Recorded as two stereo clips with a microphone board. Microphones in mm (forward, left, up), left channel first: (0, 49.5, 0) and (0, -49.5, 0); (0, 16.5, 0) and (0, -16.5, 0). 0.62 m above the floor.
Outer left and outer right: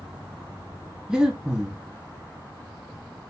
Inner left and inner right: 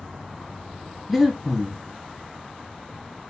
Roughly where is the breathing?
Centre.